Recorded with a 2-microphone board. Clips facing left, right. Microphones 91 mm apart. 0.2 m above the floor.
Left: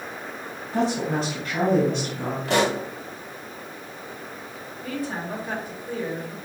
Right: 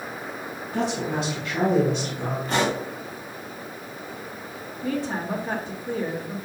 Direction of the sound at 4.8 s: 25° right (ahead or behind).